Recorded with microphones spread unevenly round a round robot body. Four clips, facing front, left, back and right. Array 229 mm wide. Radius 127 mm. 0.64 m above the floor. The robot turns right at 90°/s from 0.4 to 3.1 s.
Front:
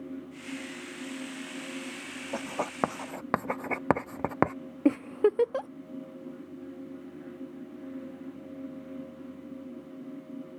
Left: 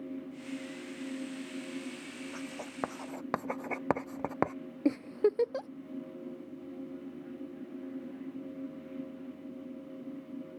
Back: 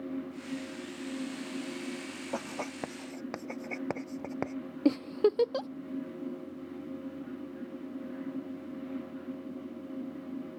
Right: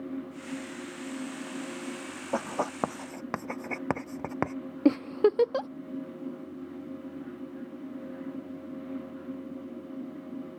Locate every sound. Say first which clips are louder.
2.3 s writing: right 15 dB, front 4 dB; 90° right; by 4.5 s 20° right
4.8 s a giggle: right 5 dB, front 2 dB; 75° right